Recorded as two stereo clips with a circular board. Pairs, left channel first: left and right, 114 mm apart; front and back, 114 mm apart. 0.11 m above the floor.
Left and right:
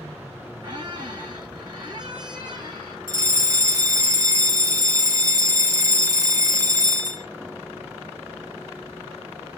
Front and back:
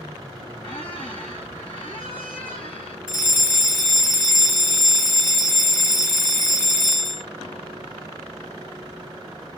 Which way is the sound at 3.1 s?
55° right.